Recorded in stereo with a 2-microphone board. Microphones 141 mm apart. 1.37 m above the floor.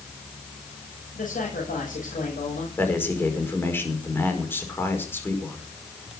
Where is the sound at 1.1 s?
75° left (ahead or behind), 6.5 m.